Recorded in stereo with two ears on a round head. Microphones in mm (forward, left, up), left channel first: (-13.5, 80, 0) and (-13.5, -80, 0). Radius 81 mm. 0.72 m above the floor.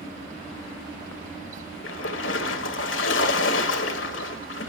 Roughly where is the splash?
Left.